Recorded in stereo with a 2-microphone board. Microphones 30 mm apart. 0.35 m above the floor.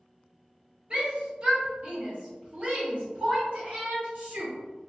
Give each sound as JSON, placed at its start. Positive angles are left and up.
{"t": 0.9, "sound": "a shout", "side_deg": -45, "distance_m": 1.8}